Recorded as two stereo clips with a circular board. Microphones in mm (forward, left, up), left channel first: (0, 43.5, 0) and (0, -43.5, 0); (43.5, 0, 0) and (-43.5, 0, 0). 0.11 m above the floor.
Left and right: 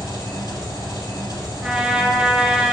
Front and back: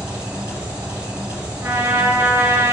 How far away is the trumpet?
About 1.0 m.